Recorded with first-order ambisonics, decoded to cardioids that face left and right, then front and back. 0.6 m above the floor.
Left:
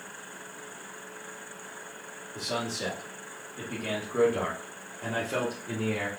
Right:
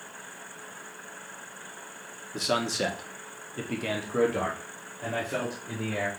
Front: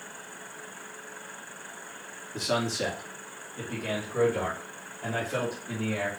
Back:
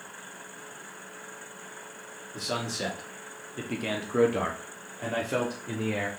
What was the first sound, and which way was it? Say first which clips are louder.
A man speaking: right 5 dB, front 4 dB; 75° right.